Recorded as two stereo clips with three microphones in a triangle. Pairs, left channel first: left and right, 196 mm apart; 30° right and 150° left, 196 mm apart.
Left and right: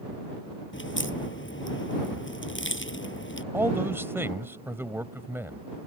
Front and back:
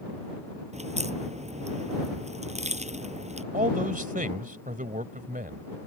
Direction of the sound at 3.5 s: 165° right.